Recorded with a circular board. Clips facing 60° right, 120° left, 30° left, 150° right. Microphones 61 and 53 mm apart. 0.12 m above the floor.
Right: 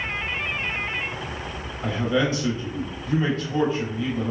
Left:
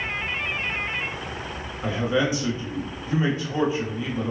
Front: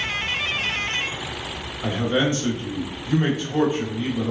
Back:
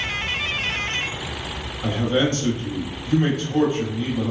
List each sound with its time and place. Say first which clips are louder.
1.8 s a man speaking: even, back 1 dB; 70° left, 1.1 m